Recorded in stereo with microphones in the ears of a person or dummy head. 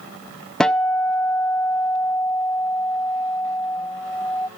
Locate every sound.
0.6 s a guitar: 5° left (ahead or behind), 0.5 m